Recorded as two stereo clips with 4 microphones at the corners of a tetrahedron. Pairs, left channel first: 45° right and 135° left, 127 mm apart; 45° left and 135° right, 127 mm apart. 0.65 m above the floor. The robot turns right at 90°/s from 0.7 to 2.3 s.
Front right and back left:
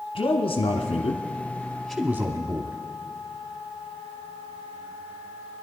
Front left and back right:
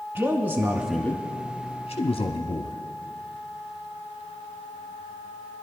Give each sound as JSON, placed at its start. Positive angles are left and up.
{"t": 0.1, "sound": "a man speaking", "azimuth_deg": -65, "distance_m": 0.8}